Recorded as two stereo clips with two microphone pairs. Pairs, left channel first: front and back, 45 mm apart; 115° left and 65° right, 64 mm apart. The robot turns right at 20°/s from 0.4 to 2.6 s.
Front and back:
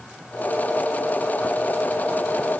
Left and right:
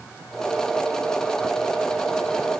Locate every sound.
Only background noise.